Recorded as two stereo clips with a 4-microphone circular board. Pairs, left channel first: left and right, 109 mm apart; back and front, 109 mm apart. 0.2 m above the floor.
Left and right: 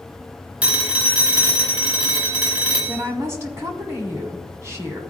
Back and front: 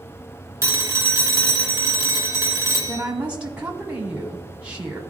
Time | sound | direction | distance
0.6 | a phone ringing | 25° right | 1.1 m
2.9 | a woman speaking | 65° right | 1.1 m